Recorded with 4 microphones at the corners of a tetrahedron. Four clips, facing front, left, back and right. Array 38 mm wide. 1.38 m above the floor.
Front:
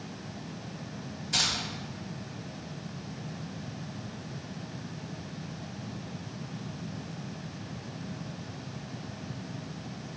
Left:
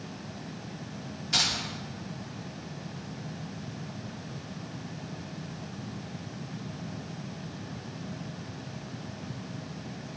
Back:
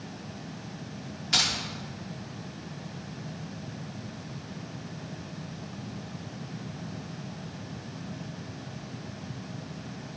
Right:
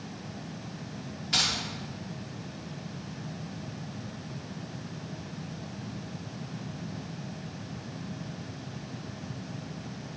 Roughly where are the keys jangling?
Behind.